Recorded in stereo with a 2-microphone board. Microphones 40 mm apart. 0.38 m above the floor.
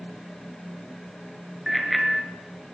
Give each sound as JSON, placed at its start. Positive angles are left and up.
{"t": 1.7, "sound": "a bicycle bell", "side_deg": -5, "distance_m": 4.0}